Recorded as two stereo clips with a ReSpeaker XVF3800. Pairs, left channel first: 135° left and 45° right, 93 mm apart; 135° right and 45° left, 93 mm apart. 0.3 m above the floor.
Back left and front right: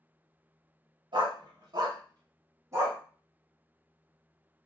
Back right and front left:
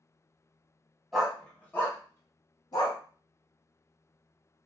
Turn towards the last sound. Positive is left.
turn(degrees=-105)